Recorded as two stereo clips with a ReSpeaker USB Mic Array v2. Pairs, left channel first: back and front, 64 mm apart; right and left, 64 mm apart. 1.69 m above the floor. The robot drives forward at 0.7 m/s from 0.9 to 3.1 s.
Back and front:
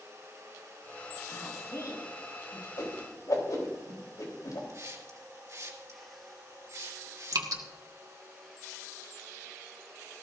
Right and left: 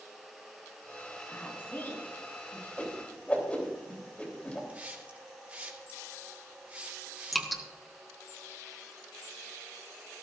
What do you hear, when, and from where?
1.3 s a woman speaking: 145° right, 4.5 m; by 2.7 s 150° right, 5.5 m
2.8 s a whoosh: 160° right, 3 m
4.7 s a hiss: 25° left, 2.5 m
7.3 s dripping: straight ahead, 1.5 m